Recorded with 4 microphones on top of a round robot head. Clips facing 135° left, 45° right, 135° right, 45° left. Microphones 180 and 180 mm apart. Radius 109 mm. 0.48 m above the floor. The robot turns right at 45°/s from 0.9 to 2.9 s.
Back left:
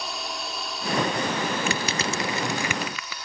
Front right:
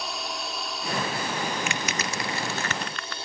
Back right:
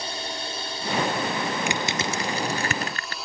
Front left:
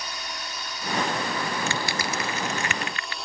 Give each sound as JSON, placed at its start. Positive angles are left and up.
{"t": 0.0, "sound": "a drone", "azimuth_deg": -135}
{"t": 1.7, "sound": "crushing", "azimuth_deg": 160}